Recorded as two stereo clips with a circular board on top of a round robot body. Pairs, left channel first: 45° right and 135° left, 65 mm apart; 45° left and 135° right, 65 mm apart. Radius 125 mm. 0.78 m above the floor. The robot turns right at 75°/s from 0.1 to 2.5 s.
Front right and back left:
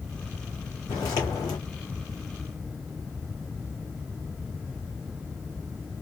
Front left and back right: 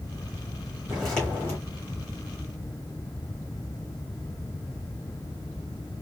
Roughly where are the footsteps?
Ahead right.